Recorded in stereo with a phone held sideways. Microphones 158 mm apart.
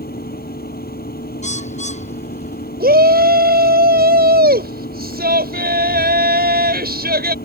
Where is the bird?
50° left (ahead or behind).